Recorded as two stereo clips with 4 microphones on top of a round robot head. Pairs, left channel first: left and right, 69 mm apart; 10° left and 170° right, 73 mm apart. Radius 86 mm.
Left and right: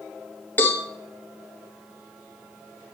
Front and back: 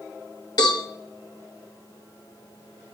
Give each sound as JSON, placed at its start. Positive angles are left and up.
{"t": 0.6, "sound": "a cowbell", "azimuth_deg": 35, "distance_m": 2.0}